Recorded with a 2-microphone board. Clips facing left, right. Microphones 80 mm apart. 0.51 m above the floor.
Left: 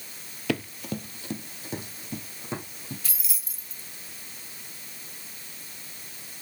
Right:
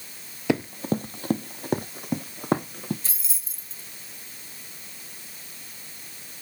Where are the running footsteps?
20° right (ahead or behind), 0.6 m; by 2.9 s 60° right (ahead or behind), 2 m.